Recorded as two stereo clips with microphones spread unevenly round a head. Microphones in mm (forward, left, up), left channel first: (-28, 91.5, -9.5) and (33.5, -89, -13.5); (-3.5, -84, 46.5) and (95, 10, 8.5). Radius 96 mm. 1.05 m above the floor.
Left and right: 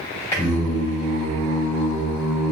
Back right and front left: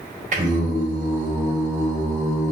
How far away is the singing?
About 1.8 m.